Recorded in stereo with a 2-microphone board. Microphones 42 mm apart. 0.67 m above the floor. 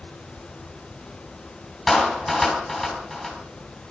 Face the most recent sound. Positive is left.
turn(degrees=0)  # may be behind; listen again after turning